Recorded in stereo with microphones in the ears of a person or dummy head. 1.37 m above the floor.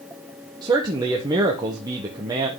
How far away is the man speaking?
About 1.2 m.